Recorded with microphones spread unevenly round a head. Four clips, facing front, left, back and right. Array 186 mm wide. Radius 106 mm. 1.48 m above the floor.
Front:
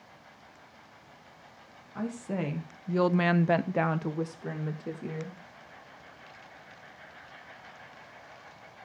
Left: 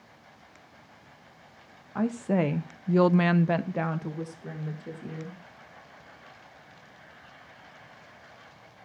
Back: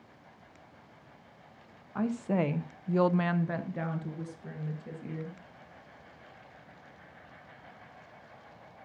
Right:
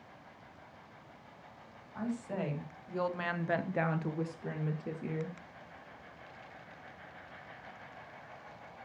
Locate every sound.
1.9 s a woman speaking: 115° left, 1.3 m; by 5.4 s 20° right, 2.5 m